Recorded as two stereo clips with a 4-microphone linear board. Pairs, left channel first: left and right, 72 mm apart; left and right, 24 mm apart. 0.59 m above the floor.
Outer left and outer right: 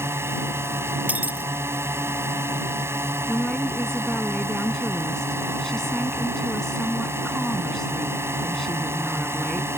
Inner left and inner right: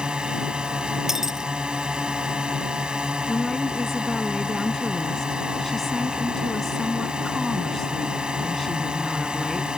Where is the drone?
35° right (ahead or behind).